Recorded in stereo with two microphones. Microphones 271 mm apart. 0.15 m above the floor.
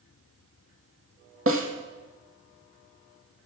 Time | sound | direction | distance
1.5 | a snare drum | 50° right (ahead or behind) | 1.6 m